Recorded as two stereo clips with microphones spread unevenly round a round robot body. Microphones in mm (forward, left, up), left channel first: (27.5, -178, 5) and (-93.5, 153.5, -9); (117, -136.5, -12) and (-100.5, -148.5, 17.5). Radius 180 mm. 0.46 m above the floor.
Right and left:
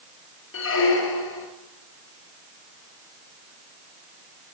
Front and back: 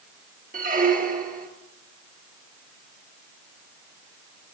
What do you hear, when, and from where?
0.5 s a squeak: 125° right, 2.5 m